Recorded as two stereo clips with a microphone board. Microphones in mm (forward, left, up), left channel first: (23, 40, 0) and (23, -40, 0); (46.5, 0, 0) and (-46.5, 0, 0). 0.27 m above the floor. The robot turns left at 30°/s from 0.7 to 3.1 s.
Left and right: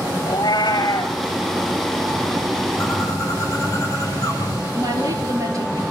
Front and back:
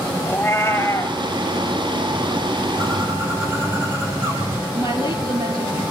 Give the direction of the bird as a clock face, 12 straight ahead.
7 o'clock.